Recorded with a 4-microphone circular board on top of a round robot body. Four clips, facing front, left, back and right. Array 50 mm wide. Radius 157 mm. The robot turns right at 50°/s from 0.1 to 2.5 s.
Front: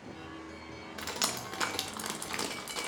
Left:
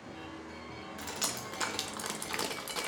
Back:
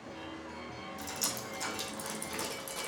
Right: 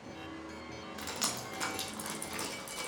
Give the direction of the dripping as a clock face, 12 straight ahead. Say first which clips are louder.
Even, front 6 dB; 12 o'clock.